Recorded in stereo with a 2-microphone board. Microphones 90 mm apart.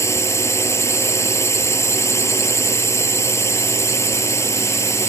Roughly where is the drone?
Left.